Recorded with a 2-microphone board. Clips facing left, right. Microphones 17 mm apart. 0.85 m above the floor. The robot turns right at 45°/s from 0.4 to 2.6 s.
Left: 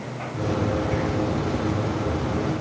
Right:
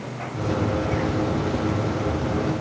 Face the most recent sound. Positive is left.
No sound to turn to.